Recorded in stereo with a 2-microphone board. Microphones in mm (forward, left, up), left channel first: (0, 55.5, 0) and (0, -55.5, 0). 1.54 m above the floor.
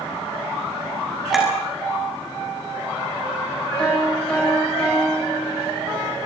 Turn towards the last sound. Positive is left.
turn(degrees=10)  # may be behind; listen again after turning